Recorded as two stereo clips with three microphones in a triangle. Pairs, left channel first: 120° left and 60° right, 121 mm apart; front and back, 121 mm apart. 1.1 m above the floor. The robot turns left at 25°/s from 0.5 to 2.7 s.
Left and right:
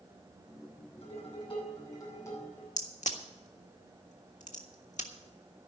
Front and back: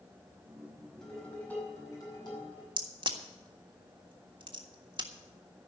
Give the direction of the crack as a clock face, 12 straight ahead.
8 o'clock.